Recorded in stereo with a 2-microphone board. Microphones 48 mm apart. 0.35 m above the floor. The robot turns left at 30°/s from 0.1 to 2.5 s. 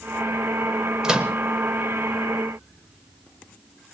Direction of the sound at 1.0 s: 15° right (ahead or behind).